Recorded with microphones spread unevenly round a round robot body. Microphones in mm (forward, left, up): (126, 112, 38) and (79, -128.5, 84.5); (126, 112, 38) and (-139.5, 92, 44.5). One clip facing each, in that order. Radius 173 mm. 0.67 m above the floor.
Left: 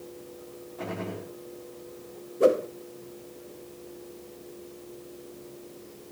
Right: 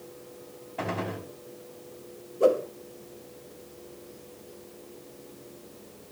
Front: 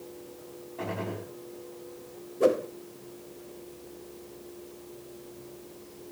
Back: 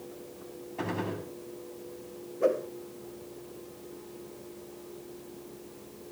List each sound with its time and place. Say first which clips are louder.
0.8 s a gunshot: right 2 dB, back 1 dB; 125° right, 5 m
2.4 s a whoosh: left 1 dB, front 3 dB; 25° left, 1.0 m